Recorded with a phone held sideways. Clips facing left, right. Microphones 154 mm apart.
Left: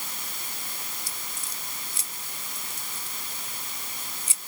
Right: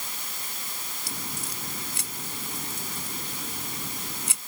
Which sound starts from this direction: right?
A crack, at 1.1 s.